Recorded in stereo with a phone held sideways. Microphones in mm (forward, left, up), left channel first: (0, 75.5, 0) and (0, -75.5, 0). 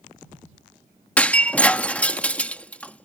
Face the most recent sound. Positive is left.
turn(degrees=10)  # may be behind; listen again after turning